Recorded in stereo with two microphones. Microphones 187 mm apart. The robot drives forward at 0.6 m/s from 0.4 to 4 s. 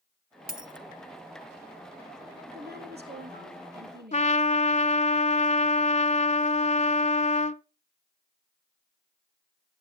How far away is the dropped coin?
About 0.9 m.